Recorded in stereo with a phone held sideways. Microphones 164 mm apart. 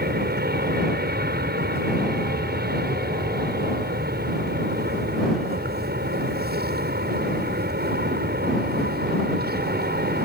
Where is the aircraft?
65° right (ahead or behind).